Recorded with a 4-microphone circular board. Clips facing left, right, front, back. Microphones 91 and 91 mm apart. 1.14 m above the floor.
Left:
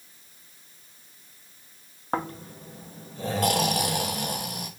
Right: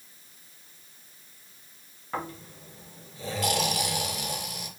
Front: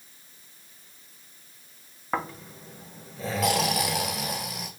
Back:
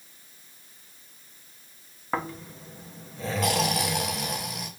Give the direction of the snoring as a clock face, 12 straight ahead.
9 o'clock.